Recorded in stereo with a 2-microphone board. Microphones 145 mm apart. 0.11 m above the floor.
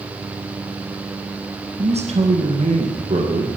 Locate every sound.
1.8 s a man speaking: 50° right (ahead or behind), 2.5 m